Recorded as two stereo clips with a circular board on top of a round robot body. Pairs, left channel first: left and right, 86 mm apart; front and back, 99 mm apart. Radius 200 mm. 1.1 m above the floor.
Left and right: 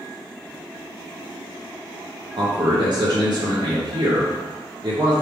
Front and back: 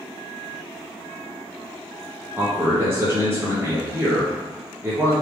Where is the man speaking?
115° right, 1.3 m.